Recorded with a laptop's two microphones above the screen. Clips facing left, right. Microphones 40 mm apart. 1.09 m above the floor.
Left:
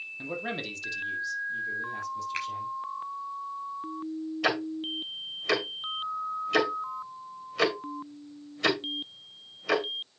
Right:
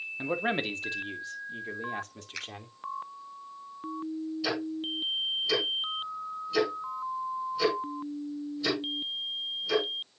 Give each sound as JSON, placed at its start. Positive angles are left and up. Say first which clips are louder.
{"t": 0.2, "sound": "a man speaking", "louder": "right 5 dB", "side_deg": -30, "distance_m": 1.8}
{"t": 2.3, "sound": "a finger snap", "louder": "left 3 dB", "side_deg": 35, "distance_m": 6.0}
{"t": 4.4, "sound": "ticking", "louder": "left 5 dB", "side_deg": 70, "distance_m": 2.0}